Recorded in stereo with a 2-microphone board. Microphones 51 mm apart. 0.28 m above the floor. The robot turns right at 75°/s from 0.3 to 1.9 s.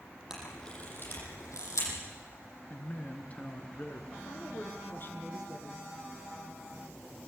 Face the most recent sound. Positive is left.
turn(degrees=40)  # may be behind; listen again after turning